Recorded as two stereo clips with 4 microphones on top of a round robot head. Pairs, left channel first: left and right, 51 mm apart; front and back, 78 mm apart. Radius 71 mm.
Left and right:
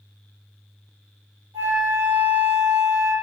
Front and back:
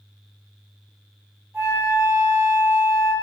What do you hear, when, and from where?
1.5 s a flute: 105° right, 4.5 m